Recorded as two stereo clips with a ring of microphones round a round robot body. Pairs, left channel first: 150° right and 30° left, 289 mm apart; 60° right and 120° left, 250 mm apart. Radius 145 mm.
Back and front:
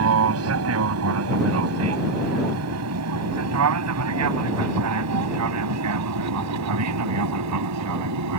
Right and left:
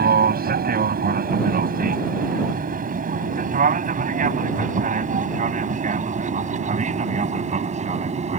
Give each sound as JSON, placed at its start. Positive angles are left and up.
{"t": 0.0, "sound": "an aircraft", "azimuth_deg": 70}